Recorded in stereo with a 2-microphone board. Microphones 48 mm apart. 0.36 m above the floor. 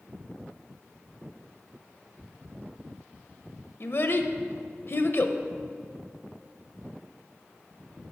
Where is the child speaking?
55° left (ahead or behind), 0.6 m.